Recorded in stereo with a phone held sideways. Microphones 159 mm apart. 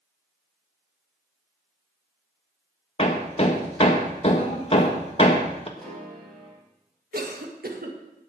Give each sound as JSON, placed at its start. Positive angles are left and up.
{"t": 3.0, "sound": "hammering", "side_deg": 40, "distance_m": 1.5}
{"t": 5.8, "sound": "a piano", "side_deg": 0, "distance_m": 5.0}
{"t": 7.1, "sound": "a cough", "side_deg": -70, "distance_m": 2.0}